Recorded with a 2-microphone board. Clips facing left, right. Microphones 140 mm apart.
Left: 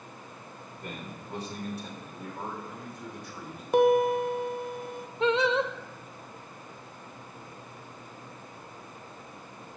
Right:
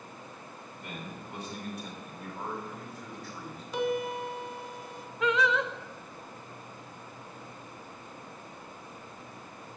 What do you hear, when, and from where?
0.7 s a man speaking: 45° left (ahead or behind), 4 m; by 3.6 s 10° left (ahead or behind), 4 m
3.7 s a piano: 55° left (ahead or behind), 0.7 m
5.2 s singing: 30° left (ahead or behind), 0.6 m